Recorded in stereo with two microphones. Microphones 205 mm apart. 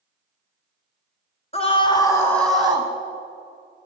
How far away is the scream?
About 1.6 m.